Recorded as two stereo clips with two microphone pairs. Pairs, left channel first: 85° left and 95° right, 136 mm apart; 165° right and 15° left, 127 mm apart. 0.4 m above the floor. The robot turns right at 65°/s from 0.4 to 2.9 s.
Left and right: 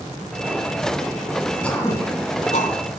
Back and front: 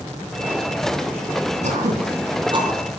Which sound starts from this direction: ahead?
Throat clearing, at 1.6 s.